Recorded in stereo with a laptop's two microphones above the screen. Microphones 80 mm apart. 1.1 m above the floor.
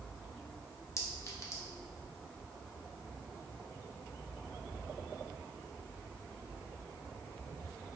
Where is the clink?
35° left (ahead or behind), 0.7 m.